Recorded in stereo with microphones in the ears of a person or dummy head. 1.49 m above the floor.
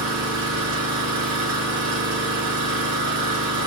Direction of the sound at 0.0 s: 75° right (ahead or behind).